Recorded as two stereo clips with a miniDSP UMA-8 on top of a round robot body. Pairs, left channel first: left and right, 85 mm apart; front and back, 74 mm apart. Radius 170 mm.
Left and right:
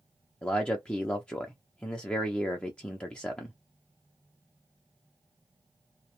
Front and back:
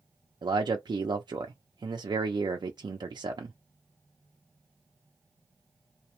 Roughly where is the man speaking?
Behind.